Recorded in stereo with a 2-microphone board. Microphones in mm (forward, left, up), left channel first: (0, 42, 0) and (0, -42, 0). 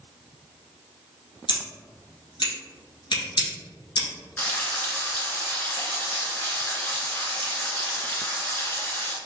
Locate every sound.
1.5 s scissors: 70° left (ahead or behind), 1.8 m
4.4 s frying: 25° left (ahead or behind), 1.1 m